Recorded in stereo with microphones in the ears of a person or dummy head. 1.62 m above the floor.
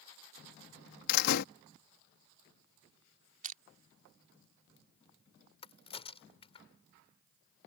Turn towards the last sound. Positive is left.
turn(degrees=30)  # may be behind; listen again after turning